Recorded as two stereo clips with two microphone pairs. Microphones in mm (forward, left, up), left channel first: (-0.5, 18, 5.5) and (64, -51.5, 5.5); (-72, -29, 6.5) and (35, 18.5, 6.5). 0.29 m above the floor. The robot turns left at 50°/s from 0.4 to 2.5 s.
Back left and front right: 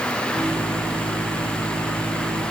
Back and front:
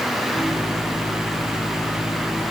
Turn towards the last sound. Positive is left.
No sound to turn to.